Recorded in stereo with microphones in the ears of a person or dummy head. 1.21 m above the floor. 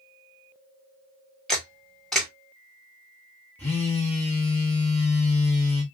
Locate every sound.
1.5 s a camera shutter: centre (ahead or behind), 1.4 m
3.6 s a phone buzzing: 5° left (ahead or behind), 0.7 m